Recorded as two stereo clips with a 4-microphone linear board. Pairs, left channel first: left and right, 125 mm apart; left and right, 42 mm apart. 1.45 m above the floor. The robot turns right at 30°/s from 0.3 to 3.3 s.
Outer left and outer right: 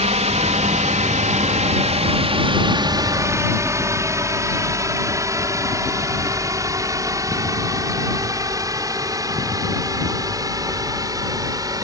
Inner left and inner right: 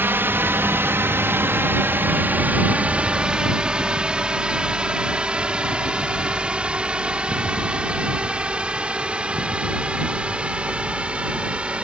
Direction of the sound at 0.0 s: 65° right (ahead or behind).